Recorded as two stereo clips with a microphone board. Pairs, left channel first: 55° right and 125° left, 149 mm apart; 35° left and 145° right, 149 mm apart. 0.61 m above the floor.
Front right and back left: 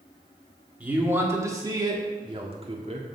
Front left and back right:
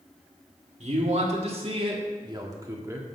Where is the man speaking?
160° right, 1.7 m; by 3.1 s 145° left, 1.6 m.